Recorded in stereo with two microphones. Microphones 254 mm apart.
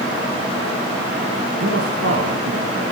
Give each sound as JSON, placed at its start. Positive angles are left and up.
{"t": 1.6, "sound": "a man speaking", "side_deg": -65, "distance_m": 2.5}